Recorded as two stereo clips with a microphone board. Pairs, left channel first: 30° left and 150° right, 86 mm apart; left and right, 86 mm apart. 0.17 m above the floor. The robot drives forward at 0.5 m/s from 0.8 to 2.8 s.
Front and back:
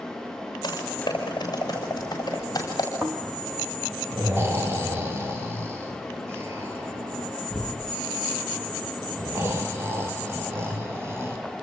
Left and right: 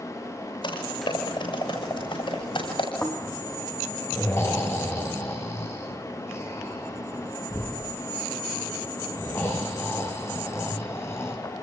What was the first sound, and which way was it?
Typing on a keyboard, 70° left.